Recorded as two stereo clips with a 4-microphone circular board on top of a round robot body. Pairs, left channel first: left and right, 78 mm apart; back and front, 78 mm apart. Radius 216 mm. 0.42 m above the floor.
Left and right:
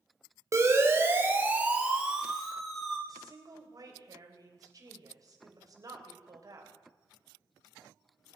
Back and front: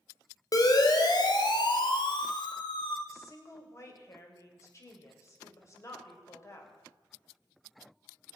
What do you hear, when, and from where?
0.5 s a siren: 140° right, 2.5 m; by 3.0 s 175° left, 3 m
3.1 s a woman speaking: 130° right, 3.5 m